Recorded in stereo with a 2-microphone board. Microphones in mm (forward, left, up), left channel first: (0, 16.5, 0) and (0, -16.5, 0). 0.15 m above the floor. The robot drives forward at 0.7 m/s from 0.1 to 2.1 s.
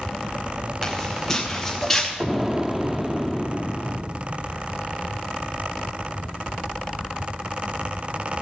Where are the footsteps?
15° left (ahead or behind), 4 m.